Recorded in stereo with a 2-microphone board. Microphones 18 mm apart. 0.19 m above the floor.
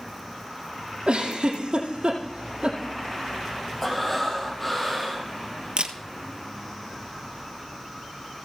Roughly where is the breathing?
Centre.